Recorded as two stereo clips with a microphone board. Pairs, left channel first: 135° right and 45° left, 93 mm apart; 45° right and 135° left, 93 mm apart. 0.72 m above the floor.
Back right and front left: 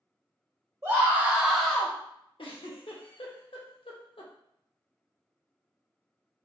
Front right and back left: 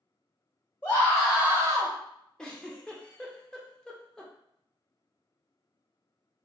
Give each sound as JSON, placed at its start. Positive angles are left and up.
{"t": 0.8, "sound": "a scream", "azimuth_deg": 5, "distance_m": 0.7}
{"t": 2.4, "sound": "a giggle", "azimuth_deg": -125, "distance_m": 0.5}